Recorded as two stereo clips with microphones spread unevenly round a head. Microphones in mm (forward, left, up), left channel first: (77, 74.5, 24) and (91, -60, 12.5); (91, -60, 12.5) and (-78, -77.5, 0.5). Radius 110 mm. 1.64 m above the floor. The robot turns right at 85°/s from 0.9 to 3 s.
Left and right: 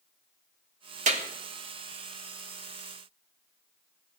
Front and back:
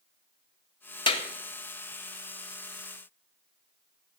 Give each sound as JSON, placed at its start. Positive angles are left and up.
{"t": 1.1, "sound": "a clap", "azimuth_deg": -55, "distance_m": 2.0}